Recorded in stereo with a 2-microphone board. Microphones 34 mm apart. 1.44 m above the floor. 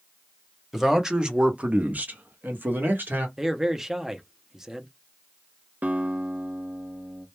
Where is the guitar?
55° right (ahead or behind), 0.6 m.